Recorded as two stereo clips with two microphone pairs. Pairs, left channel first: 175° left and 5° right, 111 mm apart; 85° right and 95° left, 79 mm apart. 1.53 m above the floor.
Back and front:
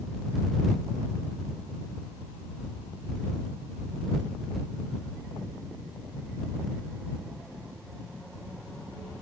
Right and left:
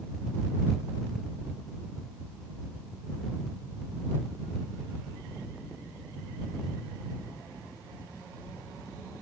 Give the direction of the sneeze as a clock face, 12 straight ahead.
No sneeze in this recording.